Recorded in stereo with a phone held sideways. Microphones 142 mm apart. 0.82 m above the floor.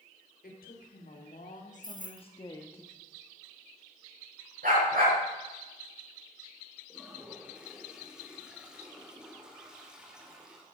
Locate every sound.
0.4 s a woman speaking: 75° left (ahead or behind), 2.5 m; by 2.8 s 10° left (ahead or behind), 1.1 m
1.8 s keys jangling: 60° right (ahead or behind), 1.2 m
4.6 s a dog barking: 70° right (ahead or behind), 5.5 m
6.9 s a toilet flushing: 5° right (ahead or behind), 2.5 m